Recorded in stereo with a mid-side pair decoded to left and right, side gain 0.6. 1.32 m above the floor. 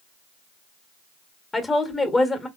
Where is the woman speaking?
20° left, 1.0 m.